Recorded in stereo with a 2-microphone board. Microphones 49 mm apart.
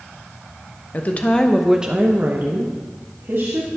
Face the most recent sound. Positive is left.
turn(degrees=-60)  # may be behind; listen again after turning